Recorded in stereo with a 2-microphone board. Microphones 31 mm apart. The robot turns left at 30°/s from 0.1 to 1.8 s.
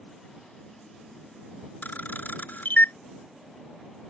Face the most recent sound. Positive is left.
turn(degrees=70)  # may be behind; listen again after turning